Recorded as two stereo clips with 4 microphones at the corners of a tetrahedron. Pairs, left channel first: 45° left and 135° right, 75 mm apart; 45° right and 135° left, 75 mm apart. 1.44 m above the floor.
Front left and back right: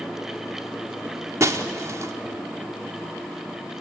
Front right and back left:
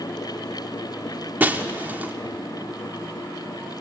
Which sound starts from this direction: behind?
Breaking glass, at 1.4 s.